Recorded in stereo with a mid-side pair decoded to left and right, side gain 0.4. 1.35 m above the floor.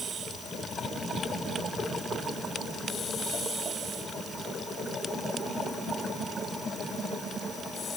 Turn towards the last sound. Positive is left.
No sound to turn to.